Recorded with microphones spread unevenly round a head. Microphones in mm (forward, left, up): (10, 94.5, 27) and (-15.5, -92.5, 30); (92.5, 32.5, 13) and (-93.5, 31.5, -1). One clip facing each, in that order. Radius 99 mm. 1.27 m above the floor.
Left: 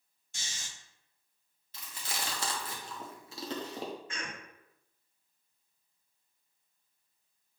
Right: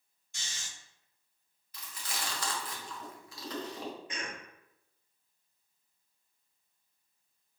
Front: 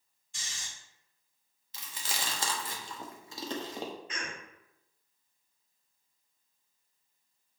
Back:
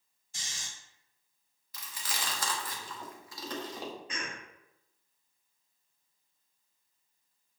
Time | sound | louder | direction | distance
0.3 | snoring | left 1 dB, even | 130° left | 1.8 m
1.7 | chewing | left 1 dB, front 1 dB | 35° left | 0.7 m
4.1 | a cough | right 1 dB, even | 170° right | 1.1 m